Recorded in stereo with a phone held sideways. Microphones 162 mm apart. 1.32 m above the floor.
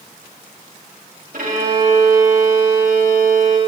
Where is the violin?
70° right (ahead or behind), 2.5 m.